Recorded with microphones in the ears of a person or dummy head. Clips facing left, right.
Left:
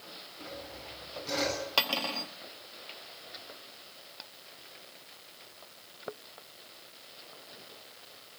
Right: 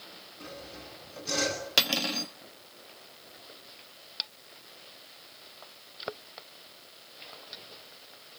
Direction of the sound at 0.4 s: 5° right (ahead or behind).